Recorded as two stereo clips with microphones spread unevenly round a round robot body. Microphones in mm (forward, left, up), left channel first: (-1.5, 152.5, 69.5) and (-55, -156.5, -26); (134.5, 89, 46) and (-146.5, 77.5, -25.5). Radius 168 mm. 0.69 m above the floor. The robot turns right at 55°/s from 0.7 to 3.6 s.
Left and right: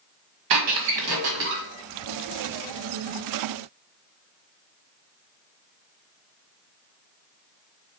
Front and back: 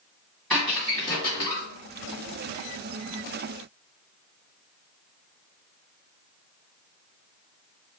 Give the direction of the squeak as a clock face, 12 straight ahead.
3 o'clock.